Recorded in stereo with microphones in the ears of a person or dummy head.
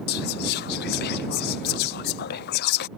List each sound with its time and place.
0.1 s whispering: 60° left (ahead or behind)